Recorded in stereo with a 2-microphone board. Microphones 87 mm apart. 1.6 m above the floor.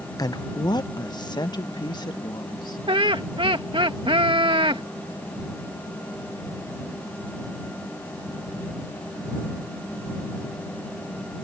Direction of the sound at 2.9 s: 85° right.